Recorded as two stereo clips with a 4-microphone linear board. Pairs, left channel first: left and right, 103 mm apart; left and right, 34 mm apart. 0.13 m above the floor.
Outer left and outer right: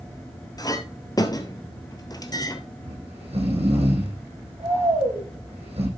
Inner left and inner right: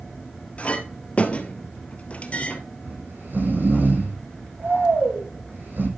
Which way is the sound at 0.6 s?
40° left (ahead or behind).